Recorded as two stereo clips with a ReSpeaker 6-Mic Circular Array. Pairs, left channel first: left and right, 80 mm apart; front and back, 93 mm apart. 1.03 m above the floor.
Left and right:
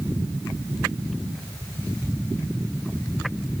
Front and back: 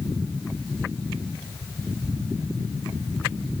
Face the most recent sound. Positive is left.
No sound to turn to.